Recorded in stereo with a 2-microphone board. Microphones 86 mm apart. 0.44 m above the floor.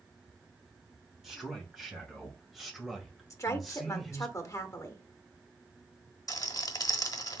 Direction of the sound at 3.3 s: 35° left (ahead or behind).